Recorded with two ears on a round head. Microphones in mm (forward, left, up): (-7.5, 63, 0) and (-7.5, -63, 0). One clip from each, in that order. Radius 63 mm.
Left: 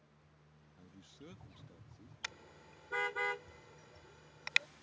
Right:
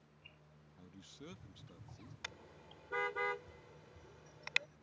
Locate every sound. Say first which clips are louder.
0.8 s a man speaking: right 2 dB; 10° right (ahead or behind); by 2.1 s 30° right (ahead or behind)
2.2 s a car horn: left 3 dB; 30° left (ahead or behind)